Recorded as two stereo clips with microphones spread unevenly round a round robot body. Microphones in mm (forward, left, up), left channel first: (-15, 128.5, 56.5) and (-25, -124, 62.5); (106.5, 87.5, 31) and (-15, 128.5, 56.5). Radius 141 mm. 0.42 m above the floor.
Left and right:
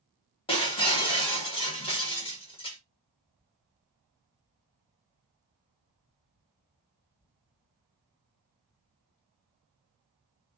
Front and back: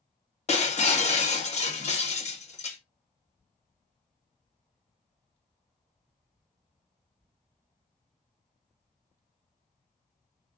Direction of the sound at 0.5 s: 15° left.